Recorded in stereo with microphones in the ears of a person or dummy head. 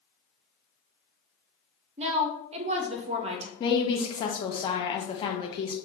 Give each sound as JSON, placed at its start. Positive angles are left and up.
{"t": 2.0, "sound": "a woman speaking", "side_deg": -35, "distance_m": 0.6}
{"t": 3.6, "sound": "a woman speaking", "side_deg": 25, "distance_m": 0.6}